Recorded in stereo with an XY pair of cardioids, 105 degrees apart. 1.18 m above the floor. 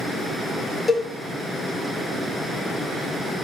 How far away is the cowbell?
About 0.8 m.